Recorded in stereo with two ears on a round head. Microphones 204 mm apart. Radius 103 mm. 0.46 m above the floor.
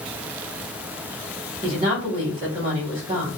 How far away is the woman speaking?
About 1.6 m.